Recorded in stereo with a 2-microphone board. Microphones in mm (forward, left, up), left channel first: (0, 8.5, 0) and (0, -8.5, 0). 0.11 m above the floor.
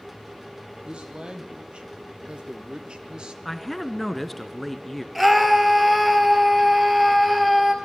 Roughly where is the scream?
Centre.